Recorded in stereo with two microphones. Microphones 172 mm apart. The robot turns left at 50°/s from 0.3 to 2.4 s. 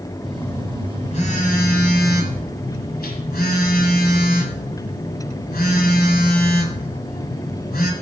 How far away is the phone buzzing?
About 1.8 m.